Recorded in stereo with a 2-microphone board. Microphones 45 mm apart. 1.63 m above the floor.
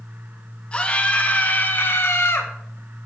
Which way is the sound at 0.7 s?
25° left (ahead or behind).